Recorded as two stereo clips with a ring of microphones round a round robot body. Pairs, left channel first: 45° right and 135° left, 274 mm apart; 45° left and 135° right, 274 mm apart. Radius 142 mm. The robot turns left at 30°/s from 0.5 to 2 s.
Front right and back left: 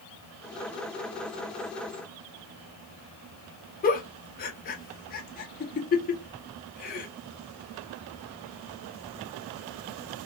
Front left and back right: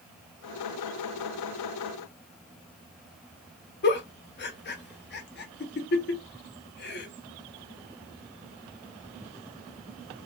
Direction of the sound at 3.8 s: 5° left.